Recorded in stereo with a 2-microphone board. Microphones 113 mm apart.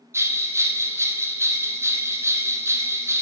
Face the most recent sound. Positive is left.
turn(degrees=-25)  # may be behind; listen again after turning